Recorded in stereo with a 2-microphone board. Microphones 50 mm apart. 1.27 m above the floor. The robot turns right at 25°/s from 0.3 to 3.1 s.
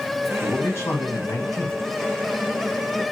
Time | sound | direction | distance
0.4 | a man speaking | 50° left | 1.1 m